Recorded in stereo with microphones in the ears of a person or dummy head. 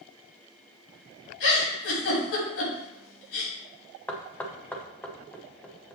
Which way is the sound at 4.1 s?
10° left (ahead or behind).